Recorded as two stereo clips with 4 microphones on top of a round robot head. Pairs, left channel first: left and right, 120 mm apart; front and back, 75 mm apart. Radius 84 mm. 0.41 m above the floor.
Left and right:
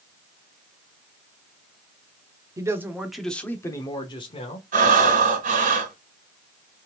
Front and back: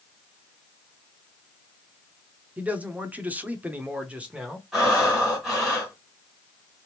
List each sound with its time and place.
2.6 s a man speaking: 125° right, 0.9 m; by 4.6 s 110° left, 1.3 m
4.7 s breathing: 90° right, 1.4 m